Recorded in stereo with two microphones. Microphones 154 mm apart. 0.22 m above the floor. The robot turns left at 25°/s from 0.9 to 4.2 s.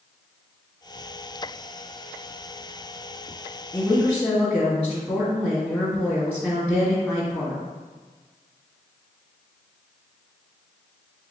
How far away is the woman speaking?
About 1.3 m.